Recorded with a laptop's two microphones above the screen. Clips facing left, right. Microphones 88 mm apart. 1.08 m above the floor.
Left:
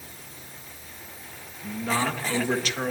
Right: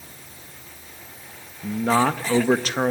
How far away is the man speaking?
About 1.2 m.